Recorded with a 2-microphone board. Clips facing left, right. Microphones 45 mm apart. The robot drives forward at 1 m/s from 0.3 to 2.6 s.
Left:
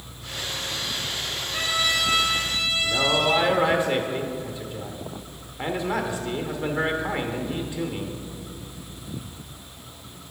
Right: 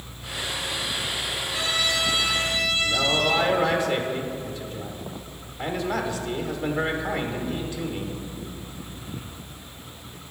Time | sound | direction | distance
1.5 | a trumpet | 35° left (ahead or behind) | 1.5 m
2.8 | a man speaking | 20° left (ahead or behind) | 0.8 m